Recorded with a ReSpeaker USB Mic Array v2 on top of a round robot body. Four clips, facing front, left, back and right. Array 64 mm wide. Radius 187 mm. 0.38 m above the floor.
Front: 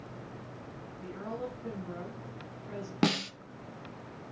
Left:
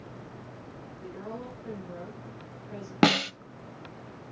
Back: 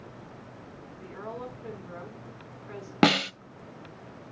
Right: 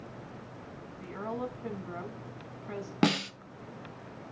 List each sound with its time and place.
1.0 s a woman speaking: 95° right, 5 m
3.0 s a snare drum: 150° left, 0.7 m